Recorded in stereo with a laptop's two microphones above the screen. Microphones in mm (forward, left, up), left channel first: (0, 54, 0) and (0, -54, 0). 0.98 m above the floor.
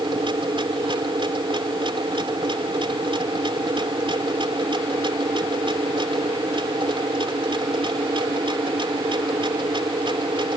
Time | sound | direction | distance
0.0 | a machine running | 50° right (ahead or behind) | ?